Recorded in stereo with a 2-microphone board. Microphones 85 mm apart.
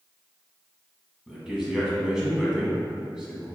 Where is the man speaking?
10° right (ahead or behind), 1.2 m.